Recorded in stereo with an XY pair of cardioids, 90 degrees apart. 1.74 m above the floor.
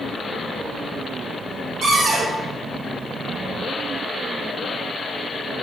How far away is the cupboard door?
About 0.8 m.